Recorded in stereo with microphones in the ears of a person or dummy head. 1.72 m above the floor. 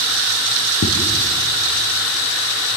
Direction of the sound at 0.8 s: 50° left (ahead or behind).